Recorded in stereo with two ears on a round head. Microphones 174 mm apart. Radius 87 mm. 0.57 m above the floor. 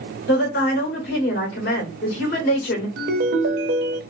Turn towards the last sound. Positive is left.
turn(degrees=-60)  # may be behind; listen again after turning